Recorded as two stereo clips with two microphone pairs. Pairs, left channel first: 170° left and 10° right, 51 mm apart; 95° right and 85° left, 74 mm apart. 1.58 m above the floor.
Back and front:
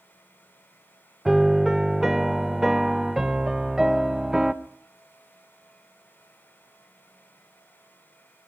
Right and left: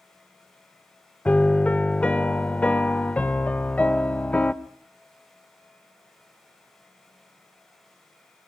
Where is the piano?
80° right, 0.7 m.